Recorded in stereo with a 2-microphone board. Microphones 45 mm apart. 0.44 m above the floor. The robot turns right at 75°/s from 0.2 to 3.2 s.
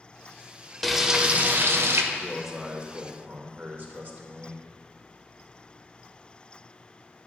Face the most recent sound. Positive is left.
turn(degrees=-115)